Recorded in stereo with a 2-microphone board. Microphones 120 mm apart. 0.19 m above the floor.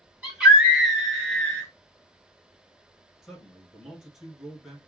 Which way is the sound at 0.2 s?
10° right (ahead or behind).